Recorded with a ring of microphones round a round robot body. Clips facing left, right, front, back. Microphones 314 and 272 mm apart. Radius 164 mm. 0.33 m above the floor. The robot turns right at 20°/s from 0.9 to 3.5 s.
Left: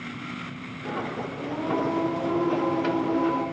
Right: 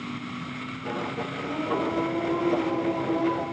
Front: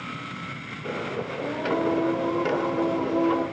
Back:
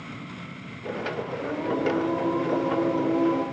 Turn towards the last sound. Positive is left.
turn(degrees=110)